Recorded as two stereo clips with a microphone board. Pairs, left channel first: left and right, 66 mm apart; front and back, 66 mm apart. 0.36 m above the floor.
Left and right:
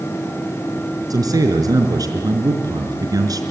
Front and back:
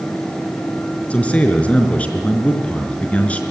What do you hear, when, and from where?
1.1 s a man speaking: 70° right, 4.5 m